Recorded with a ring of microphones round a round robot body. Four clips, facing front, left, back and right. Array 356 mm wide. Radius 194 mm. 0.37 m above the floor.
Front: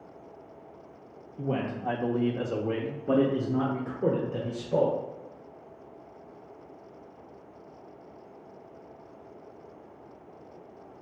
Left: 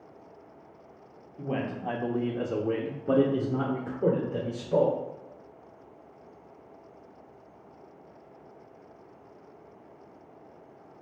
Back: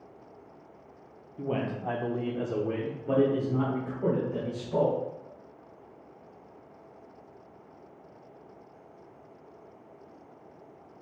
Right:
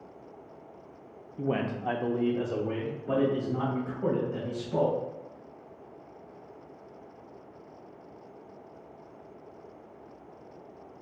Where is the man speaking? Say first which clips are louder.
Right 2 dB, front 1 dB; 95° right, 0.9 m; by 4.9 s 65° left, 1.6 m.